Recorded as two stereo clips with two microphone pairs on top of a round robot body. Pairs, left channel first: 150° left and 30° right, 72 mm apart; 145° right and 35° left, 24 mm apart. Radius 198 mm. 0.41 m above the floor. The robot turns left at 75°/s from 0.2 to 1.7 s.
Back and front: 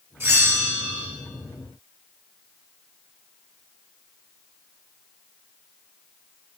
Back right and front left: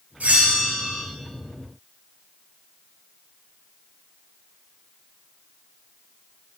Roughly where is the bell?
Ahead left.